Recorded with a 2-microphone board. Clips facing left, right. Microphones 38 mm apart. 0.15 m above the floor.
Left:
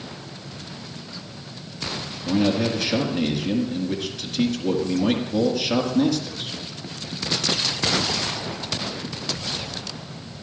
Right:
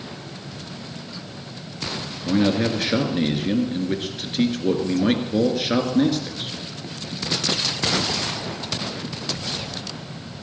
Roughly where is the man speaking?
Right.